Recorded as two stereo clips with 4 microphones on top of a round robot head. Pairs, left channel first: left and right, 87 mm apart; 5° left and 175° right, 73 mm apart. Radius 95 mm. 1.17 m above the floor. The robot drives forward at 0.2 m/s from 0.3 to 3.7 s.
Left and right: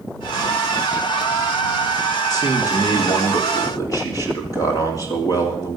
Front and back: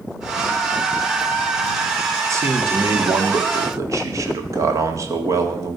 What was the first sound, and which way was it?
A man speaking, 140° left.